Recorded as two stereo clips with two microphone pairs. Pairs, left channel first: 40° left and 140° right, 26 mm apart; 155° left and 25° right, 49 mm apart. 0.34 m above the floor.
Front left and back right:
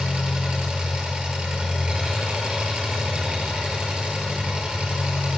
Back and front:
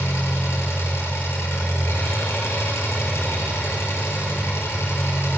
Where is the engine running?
175° left, 7 m.